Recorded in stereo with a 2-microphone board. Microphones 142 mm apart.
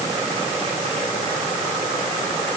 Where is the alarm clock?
No alarm clock in this recording.